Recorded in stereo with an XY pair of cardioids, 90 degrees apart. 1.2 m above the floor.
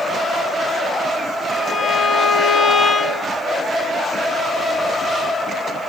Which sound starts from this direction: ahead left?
A violin, at 1.5 s.